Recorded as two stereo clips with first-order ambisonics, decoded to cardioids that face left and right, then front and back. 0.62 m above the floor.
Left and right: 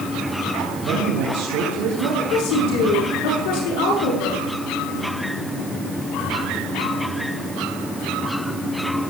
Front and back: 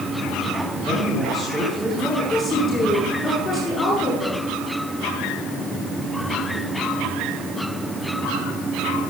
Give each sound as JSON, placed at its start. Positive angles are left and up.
{"t": 0.8, "sound": "a man speaking", "azimuth_deg": -100, "distance_m": 4.5}
{"t": 2.3, "sound": "a woman speaking", "azimuth_deg": 70, "distance_m": 9.0}